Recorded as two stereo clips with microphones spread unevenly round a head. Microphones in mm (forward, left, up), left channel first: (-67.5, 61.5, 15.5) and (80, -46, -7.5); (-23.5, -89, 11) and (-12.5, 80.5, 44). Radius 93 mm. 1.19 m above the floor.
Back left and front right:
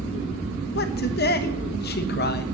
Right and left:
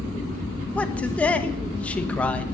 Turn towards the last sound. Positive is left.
turn(degrees=-175)